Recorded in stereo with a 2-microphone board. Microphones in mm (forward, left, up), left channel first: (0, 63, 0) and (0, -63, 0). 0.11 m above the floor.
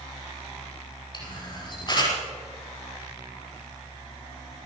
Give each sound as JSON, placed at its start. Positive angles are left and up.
{"t": 1.1, "sound": "a camera shutter", "side_deg": 40, "distance_m": 5.5}